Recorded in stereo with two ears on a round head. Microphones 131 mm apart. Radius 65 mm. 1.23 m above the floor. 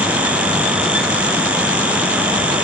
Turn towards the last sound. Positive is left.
No sound to turn to.